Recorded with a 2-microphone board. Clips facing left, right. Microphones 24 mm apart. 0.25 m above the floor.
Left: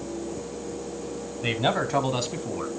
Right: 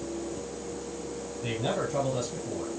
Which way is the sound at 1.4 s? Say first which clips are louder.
Left 6 dB; 40° left (ahead or behind).